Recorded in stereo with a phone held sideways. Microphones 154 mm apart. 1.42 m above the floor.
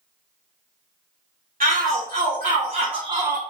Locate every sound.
1.6 s a shout: 65° right (ahead or behind), 1.2 m; by 3.4 s 15° right (ahead or behind), 0.5 m